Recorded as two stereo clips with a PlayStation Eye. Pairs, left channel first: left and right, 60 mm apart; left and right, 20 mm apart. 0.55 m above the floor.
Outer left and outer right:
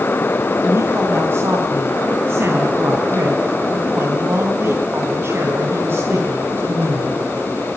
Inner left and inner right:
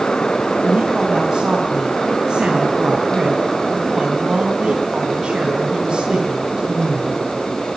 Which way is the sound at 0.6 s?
45° right (ahead or behind).